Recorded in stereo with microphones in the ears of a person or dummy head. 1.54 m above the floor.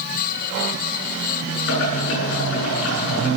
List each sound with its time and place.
1.7 s boiling: 70° left (ahead or behind), 10 m